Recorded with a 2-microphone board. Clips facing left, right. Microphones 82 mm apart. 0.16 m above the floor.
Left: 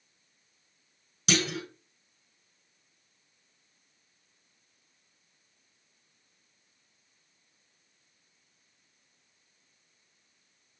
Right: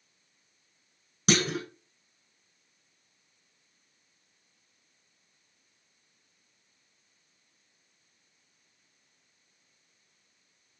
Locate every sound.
1.3 s a clunk: 40° right (ahead or behind), 0.7 m